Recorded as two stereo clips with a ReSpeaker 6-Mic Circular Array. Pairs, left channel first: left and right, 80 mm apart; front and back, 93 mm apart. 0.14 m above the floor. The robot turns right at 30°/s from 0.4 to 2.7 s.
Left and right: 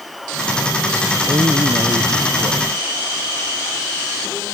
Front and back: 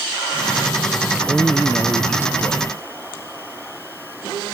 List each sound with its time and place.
1.1 s a man speaking: 100° right; by 2.8 s 55° right